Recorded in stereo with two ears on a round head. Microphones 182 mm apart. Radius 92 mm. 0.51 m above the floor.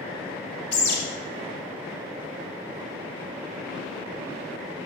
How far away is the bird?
About 1.8 m.